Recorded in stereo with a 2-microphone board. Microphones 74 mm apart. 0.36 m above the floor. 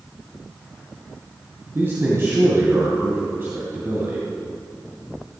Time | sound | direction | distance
1.8 | a man speaking | 30° right (ahead or behind) | 2 m